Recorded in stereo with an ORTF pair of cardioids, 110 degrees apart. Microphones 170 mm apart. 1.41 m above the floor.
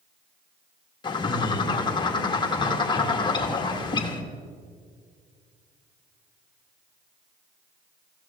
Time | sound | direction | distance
1.0 | a bird | 25° left | 1.6 m